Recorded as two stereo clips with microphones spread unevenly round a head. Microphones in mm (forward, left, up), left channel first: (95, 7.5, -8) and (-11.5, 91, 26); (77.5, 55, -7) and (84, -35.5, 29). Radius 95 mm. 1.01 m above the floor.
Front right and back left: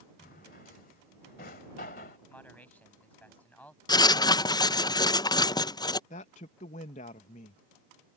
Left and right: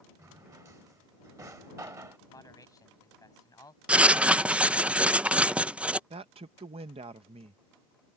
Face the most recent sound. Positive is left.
turn(degrees=-65)